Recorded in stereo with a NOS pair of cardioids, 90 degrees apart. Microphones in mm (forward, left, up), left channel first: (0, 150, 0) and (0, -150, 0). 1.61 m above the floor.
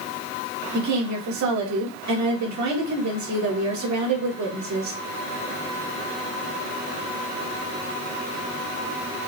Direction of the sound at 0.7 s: 65° right.